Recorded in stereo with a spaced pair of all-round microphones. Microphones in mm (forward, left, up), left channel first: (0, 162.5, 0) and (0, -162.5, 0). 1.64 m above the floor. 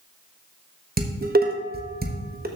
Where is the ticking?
No ticking in this recording.